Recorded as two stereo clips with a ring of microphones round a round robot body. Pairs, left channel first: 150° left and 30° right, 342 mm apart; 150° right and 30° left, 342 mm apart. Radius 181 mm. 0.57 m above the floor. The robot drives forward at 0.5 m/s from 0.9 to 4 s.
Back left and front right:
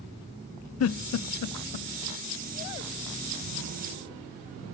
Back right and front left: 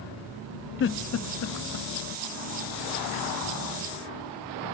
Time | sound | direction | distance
0.8 | a giggle | 170° left | 0.5 m